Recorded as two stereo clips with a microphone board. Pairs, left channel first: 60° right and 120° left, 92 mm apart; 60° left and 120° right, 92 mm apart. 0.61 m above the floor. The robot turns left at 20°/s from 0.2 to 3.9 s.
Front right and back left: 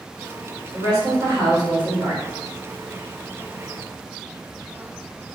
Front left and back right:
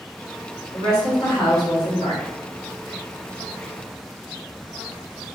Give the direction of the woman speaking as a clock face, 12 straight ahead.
9 o'clock.